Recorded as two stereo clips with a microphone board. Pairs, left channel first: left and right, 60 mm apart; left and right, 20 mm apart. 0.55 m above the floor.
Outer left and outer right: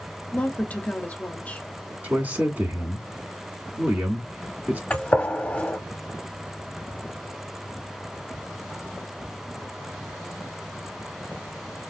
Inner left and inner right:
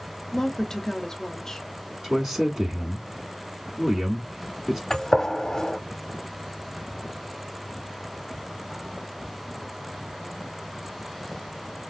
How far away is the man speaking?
About 1.2 m.